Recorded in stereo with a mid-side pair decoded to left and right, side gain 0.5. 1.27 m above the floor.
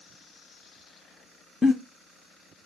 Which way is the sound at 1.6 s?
20° left.